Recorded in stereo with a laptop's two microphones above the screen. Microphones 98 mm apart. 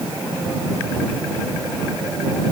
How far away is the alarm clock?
I don't hear an alarm clock.